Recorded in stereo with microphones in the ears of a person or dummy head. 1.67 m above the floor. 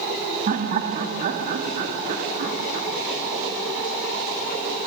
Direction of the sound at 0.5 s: 45° right (ahead or behind).